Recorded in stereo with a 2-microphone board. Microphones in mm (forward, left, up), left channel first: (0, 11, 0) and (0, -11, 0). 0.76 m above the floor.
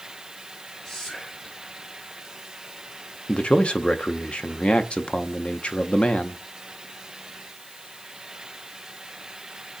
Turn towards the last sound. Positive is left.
turn(degrees=55)  # may be behind; listen again after turning